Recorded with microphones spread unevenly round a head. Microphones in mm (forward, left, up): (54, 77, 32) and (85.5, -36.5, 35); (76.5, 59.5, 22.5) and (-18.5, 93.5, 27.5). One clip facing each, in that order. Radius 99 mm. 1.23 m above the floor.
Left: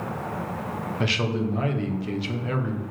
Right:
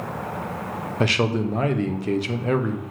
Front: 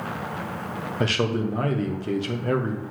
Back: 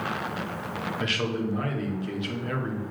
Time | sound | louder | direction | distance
1.0 | a man speaking | right 5 dB, front 6 dB | 55° right | 0.8 m